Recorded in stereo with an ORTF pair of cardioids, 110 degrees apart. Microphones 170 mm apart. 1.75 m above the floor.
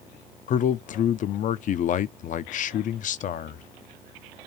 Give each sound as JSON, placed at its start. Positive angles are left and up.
{"t": 0.5, "sound": "a man speaking", "azimuth_deg": 50, "distance_m": 0.6}